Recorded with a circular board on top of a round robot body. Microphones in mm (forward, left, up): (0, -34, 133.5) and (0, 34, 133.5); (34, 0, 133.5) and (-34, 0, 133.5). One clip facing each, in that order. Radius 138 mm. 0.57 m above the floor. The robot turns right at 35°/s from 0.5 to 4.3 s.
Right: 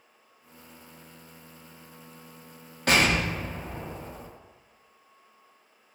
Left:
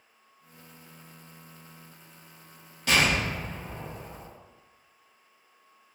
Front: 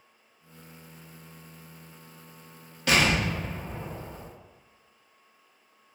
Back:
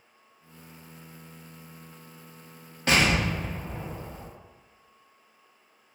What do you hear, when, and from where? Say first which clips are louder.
2.9 s an explosion: right 2 dB, even; 125° right, 0.9 m; by 4.3 s 75° right, 0.9 m